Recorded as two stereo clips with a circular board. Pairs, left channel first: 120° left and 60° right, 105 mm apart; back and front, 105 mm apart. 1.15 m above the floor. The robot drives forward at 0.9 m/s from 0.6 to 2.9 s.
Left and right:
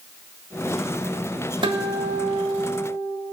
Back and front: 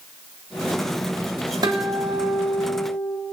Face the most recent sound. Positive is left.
turn(degrees=-110)